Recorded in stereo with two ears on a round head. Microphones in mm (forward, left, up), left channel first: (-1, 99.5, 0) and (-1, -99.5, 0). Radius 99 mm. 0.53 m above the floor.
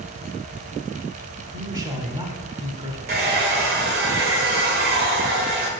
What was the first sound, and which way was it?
A man speaking, 20° right (ahead or behind).